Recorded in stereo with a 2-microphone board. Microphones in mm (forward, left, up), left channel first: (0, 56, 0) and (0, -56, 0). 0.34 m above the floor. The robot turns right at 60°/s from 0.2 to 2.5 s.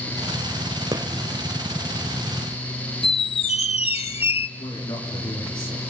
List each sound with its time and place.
0.9 s a gunshot: 35° right (ahead or behind), 1.2 m
3.0 s a squeak: 65° left (ahead or behind), 0.6 m
4.6 s a man speaking: 45° left (ahead or behind), 6 m